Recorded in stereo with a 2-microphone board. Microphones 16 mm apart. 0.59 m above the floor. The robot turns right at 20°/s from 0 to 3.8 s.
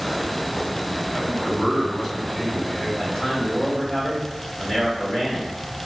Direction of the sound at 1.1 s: 110° left.